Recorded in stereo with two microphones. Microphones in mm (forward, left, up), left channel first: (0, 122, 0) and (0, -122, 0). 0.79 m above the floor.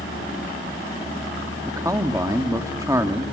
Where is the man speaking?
15° right (ahead or behind), 1.7 m.